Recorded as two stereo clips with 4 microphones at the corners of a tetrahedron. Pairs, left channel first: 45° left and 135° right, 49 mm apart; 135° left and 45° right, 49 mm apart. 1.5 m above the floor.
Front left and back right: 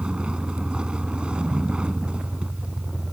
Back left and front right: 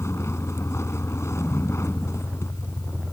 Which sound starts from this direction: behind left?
A vehicle, at 0.0 s.